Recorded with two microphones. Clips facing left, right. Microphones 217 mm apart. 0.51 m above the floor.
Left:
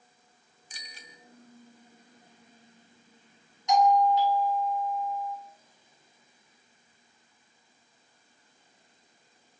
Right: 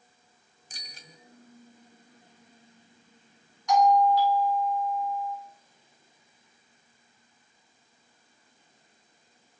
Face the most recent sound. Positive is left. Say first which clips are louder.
# right 1 dB
turn(degrees=20)  # may be behind; listen again after turning